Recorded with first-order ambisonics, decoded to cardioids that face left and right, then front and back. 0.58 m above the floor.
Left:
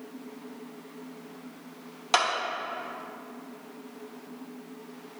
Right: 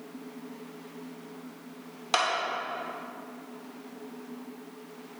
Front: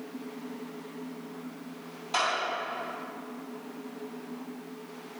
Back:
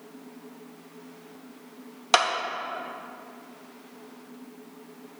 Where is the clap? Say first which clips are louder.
Left 2 dB, back 7 dB; 170° left, 1.0 m.